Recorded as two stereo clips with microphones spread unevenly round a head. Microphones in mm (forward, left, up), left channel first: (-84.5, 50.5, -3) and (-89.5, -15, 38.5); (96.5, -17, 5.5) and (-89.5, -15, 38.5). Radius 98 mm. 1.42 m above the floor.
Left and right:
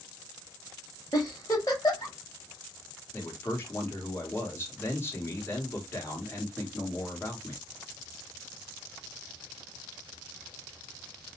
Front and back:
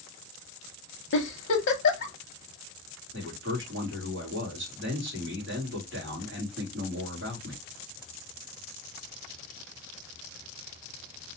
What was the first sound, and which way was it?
A giggle, straight ahead.